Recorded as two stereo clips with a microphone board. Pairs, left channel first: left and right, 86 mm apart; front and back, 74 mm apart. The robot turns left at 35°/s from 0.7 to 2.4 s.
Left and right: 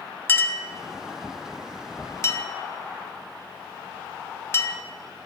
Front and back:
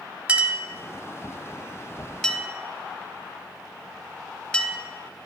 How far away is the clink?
About 0.7 m.